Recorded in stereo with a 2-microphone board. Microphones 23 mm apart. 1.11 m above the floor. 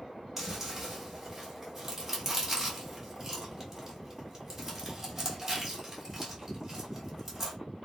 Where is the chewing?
15° right (ahead or behind), 1.4 m.